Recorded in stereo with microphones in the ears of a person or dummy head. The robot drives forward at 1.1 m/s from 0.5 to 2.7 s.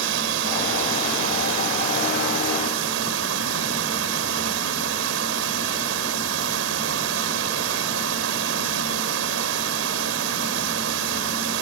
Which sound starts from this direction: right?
Running water, at 0.0 s.